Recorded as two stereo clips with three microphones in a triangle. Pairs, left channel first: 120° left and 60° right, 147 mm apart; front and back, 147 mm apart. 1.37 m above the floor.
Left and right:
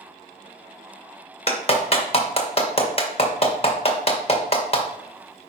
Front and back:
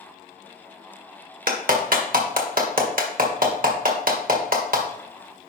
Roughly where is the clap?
Behind.